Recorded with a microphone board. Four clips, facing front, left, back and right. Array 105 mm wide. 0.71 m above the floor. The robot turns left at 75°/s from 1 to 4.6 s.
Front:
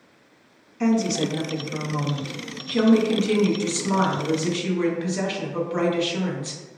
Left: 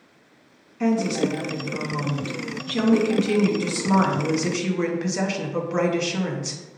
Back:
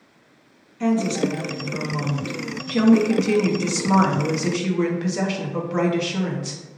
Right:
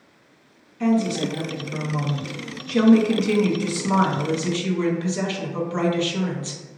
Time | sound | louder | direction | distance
0.8 | a woman speaking | right 1 dB, back 1 dB | 25° left | 0.6 m